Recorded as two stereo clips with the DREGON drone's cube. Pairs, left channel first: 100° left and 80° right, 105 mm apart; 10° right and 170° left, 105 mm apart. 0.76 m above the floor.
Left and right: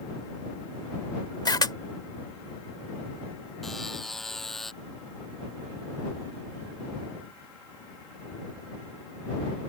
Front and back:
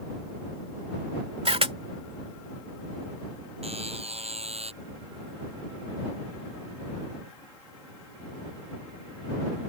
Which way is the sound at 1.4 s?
150° left.